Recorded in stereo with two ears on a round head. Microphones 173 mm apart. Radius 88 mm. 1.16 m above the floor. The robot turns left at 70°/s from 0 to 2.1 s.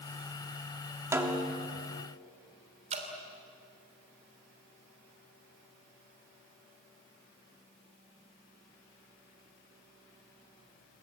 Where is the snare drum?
165° right, 2.5 m; by 1.7 s 155° left, 2.5 m.